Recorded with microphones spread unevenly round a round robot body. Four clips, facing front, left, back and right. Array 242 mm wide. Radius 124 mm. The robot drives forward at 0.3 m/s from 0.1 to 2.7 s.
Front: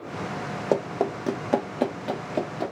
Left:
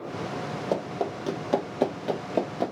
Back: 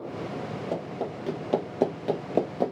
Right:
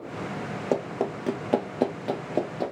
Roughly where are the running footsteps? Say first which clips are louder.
Right 2 dB, front 10 dB; ahead.